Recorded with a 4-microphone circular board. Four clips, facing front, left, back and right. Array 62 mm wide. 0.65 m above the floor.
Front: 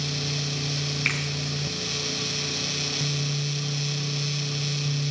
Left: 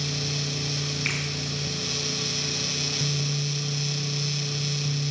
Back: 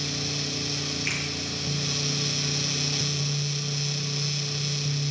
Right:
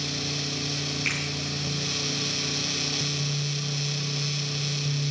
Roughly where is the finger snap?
Ahead.